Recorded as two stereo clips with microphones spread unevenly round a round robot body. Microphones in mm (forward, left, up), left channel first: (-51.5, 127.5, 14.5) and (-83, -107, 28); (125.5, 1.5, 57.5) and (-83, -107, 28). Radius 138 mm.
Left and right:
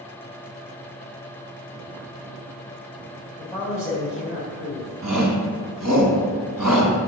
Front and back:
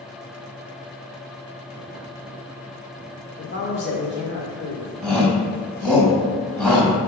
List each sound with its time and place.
3.4 s a man speaking: 10° right, 2.0 m
5.0 s a shout: 60° right, 3.5 m